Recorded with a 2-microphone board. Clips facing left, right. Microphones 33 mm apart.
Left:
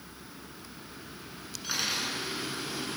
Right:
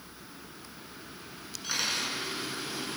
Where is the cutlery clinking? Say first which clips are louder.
Even; 5° left (ahead or behind), 6.5 m.